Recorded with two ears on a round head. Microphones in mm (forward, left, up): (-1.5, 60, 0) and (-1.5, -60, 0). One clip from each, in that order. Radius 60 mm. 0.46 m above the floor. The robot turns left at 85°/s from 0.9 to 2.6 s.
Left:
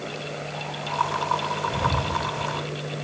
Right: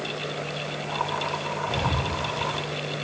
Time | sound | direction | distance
1.7 | breathing | 50° right (ahead or behind) | 5 m